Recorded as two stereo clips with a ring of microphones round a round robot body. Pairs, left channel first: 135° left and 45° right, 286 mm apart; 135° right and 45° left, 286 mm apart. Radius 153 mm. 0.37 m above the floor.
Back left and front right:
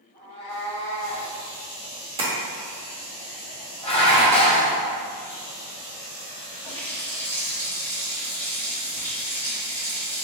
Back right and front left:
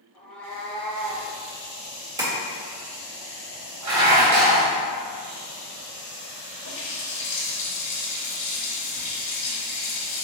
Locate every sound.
0.1 s a cat meowing: 135° left, 1.6 m; by 1.3 s 165° left, 1.6 m
2.2 s tapping: 10° right, 1.4 m
3.8 s dishes clattering: 65° left, 1.2 m
6.7 s a running tap: 140° right, 1.7 m